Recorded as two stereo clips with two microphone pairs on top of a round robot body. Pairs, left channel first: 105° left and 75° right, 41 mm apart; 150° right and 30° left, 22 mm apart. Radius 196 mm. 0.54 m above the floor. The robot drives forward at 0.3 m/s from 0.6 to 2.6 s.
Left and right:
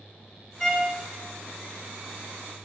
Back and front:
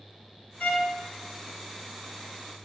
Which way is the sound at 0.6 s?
170° right.